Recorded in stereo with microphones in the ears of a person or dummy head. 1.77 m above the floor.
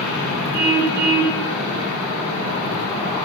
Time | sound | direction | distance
0.5 | a car horn | 20° right (ahead or behind) | 9 m